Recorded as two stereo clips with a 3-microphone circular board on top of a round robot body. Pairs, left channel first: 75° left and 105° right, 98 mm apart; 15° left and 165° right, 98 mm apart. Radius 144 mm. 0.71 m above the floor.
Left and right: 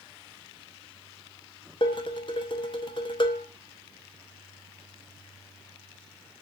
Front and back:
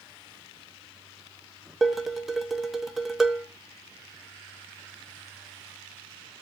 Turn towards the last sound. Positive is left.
turn(degrees=110)